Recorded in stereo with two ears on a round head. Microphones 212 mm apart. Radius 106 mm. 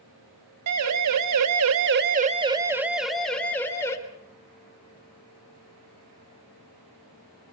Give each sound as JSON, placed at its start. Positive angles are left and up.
{"t": 0.7, "sound": "a siren", "side_deg": -70, "distance_m": 2.0}